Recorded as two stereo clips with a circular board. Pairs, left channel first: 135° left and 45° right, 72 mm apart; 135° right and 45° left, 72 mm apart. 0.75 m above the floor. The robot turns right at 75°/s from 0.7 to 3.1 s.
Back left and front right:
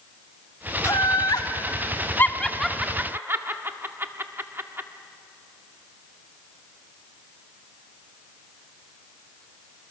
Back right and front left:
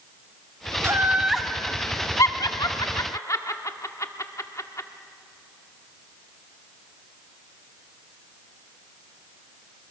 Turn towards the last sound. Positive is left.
turn(degrees=-100)